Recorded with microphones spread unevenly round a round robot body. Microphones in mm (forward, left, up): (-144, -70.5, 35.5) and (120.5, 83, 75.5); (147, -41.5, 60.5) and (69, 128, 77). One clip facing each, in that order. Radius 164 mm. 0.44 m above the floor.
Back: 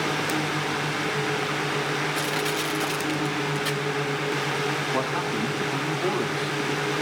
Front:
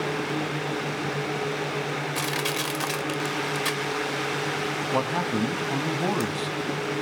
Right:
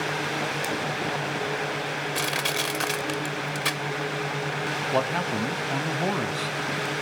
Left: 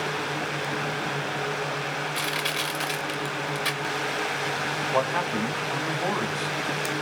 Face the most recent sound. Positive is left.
turn(degrees=-15)